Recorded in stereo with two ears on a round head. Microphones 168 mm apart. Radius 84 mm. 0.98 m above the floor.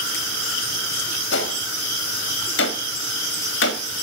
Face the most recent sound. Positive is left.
turn(degrees=65)  # may be behind; listen again after turning